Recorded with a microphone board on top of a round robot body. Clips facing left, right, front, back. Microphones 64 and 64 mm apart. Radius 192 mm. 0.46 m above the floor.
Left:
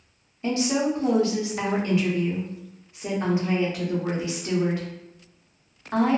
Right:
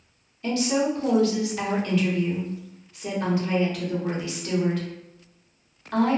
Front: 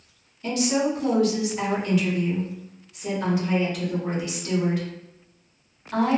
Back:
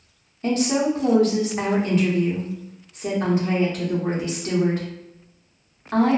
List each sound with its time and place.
0.4 s a woman speaking: 150° left, 1.0 m